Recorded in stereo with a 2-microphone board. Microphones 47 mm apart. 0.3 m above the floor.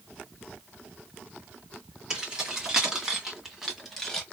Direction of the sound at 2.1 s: 20° right (ahead or behind).